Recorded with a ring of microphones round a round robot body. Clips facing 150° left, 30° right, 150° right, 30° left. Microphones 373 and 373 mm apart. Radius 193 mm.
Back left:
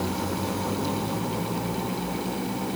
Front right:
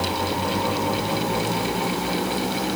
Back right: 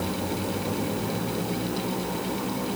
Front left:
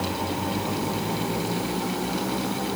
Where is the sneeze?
I don't hear a sneeze.